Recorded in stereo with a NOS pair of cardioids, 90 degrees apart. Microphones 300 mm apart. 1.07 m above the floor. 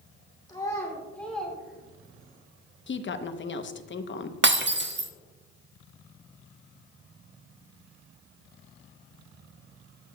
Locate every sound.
0.5 s a child speaking: 15° left, 2.5 m; by 2.4 s 15° right, 2 m
2.9 s a woman speaking: 40° left, 1.0 m
4.4 s breaking glass: 40° right, 1.1 m